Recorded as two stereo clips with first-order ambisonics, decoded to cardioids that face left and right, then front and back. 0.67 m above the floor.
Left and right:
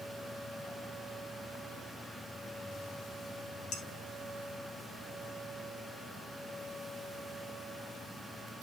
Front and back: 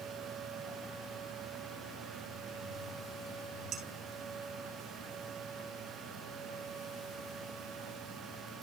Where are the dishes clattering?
135° left, 3.5 m.